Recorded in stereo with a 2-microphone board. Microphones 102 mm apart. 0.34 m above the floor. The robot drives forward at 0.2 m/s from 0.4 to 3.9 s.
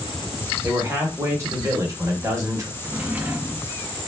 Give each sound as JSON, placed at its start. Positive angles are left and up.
{"t": 0.6, "sound": "a man speaking", "side_deg": -30, "distance_m": 1.1}
{"t": 2.8, "sound": "a drawer", "side_deg": -20, "distance_m": 0.5}